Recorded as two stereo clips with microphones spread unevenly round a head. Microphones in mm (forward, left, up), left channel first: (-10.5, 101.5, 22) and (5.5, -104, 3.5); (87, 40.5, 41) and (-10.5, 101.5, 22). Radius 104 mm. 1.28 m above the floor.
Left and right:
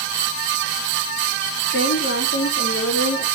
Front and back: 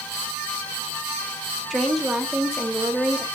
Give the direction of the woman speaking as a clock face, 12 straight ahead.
10 o'clock.